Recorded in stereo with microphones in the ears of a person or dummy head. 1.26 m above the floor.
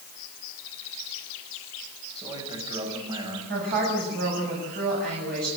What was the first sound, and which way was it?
A man speaking, 15° right (ahead or behind).